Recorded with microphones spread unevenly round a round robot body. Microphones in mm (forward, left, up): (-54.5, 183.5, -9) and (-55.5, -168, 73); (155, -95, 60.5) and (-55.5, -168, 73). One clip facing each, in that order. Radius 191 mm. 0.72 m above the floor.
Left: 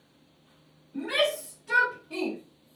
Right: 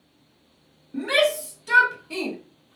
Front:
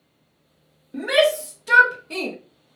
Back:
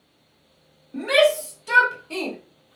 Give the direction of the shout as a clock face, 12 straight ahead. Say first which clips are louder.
Right 5 dB, back 1 dB; 2 o'clock.